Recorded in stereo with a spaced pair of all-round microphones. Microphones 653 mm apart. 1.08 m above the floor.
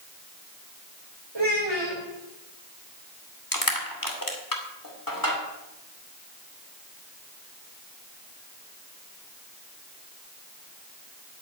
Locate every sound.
1.4 s a child speaking: 40° right (ahead or behind), 3.5 m
3.5 s crushing: 30° left (ahead or behind), 2.5 m